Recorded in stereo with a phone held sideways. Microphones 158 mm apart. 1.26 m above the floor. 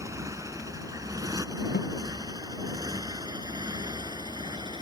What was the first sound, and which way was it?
A motorcycle, 20° right (ahead or behind).